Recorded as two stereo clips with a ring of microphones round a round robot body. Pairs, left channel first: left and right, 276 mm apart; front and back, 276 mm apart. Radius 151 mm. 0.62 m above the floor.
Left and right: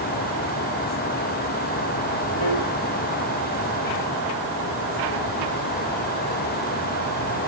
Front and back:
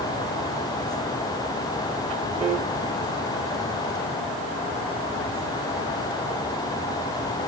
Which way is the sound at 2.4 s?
110° left.